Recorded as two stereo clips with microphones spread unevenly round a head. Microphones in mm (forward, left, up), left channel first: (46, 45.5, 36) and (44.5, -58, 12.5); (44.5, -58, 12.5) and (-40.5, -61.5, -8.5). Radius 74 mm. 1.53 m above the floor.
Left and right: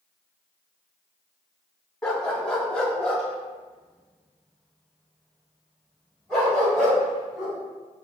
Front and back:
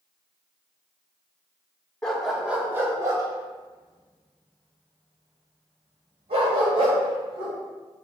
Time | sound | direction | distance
2.0 | a dog barking | 50° left | 1.1 m